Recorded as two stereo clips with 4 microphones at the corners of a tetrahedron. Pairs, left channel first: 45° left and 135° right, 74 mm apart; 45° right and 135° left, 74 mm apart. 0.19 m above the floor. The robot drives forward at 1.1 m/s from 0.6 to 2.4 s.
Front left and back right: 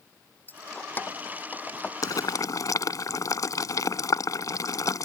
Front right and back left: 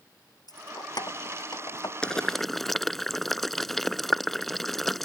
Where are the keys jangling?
20° right; by 1.9 s 25° right.